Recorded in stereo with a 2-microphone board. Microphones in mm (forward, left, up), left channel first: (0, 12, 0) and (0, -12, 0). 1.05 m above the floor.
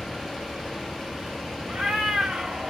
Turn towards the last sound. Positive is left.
turn(degrees=-45)  # may be behind; listen again after turning